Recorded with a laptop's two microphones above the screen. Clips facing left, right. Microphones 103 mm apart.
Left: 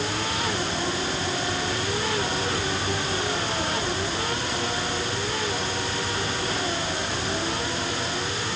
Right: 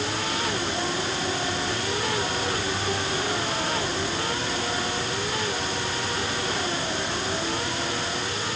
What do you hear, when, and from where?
Only background noise.